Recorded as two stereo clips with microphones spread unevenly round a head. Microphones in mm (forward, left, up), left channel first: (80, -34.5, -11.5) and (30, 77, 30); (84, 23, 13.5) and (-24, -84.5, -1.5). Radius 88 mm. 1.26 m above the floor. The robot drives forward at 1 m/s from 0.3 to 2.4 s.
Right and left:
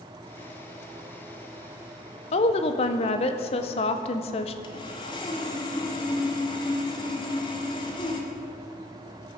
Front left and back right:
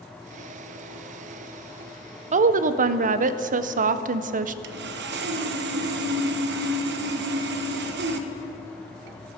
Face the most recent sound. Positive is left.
turn(degrees=-130)